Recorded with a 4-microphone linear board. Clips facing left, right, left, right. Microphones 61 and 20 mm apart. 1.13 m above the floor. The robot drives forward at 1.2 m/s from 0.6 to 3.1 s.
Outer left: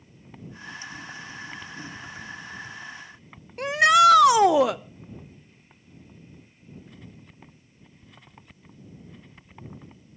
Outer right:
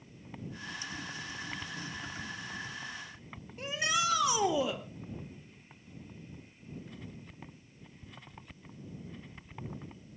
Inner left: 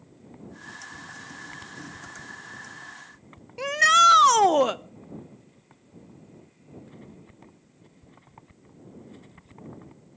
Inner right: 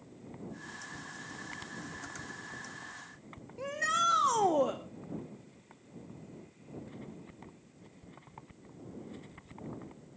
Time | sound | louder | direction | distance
3.6 | a shout | outer left 15 dB, inner left 13 dB | 70° left (ahead or behind) | 0.8 m